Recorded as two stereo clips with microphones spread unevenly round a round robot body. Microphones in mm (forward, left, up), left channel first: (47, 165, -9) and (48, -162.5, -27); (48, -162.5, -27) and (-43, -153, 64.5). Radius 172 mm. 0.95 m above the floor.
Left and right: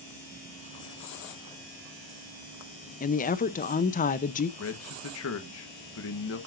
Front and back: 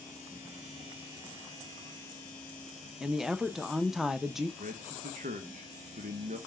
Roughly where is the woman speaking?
Ahead left.